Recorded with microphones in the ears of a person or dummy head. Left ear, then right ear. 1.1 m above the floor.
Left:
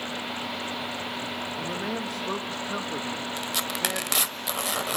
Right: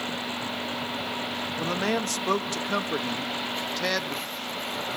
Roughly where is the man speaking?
Right.